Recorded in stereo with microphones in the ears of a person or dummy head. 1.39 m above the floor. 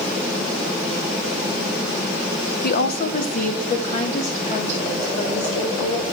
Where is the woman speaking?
55° left (ahead or behind), 1.0 m; by 6.0 s 30° left (ahead or behind), 4 m.